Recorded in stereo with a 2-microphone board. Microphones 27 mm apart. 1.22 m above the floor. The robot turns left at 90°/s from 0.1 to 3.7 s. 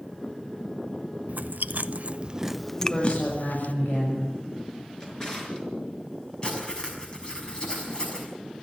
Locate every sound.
1.3 s chewing: 60° right (ahead or behind), 0.6 m; by 3.7 s 75° left (ahead or behind), 0.6 m
2.8 s a woman speaking: 160° left, 7 m; by 4.3 s 75° left, 7 m
5.0 s a drawer: 25° left (ahead or behind), 5 m
6.4 s writing: 35° left (ahead or behind), 6 m